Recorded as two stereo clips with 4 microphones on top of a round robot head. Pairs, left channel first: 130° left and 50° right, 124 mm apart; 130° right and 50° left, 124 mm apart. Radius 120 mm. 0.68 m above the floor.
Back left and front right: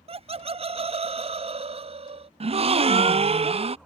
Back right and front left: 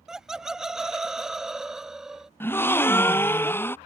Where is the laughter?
35° right.